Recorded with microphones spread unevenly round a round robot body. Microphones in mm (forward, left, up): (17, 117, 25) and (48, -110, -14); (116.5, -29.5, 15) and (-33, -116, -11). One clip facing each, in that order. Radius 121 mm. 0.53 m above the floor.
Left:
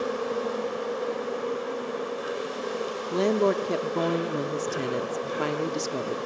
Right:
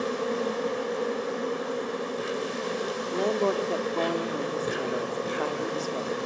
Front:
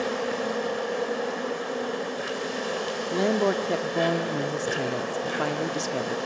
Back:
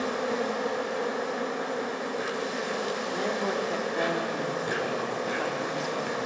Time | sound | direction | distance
0.0 | an insect | 30° right | 8 m
3.1 | a woman speaking | 40° left | 1.1 m